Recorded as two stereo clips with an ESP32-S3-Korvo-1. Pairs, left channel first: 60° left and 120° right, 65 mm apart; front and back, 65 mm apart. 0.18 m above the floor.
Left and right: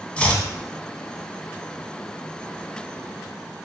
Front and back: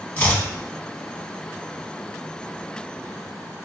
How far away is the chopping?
About 0.8 m.